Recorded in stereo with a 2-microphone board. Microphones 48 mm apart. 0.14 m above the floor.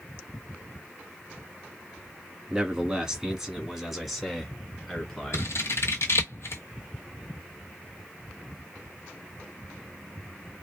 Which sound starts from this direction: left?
Scissors, at 5.3 s.